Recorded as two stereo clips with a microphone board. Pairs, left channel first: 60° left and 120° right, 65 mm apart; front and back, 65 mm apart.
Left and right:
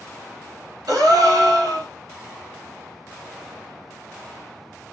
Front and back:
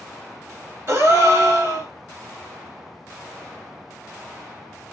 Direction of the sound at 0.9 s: 140° right.